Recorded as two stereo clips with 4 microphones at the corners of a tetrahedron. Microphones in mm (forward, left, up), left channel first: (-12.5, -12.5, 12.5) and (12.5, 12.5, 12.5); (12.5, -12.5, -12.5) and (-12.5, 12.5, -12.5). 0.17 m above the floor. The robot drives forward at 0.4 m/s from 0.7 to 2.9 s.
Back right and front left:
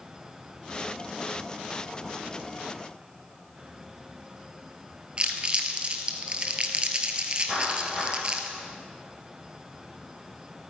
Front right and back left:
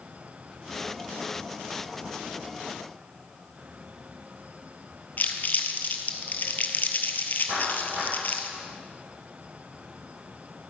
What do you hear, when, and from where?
5.2 s crumpling: 10° right, 1.0 m
7.5 s a clap: 115° left, 5 m